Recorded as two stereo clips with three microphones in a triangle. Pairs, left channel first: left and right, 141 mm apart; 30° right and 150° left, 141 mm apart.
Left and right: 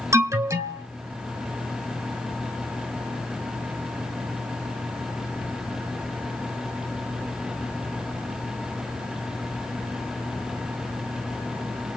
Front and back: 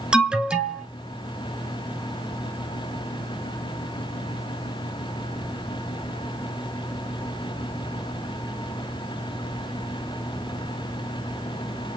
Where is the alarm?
130° right, 0.8 m.